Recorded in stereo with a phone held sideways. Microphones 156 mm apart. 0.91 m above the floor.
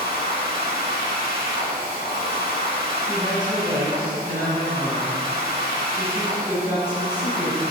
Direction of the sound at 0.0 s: 70° left (ahead or behind).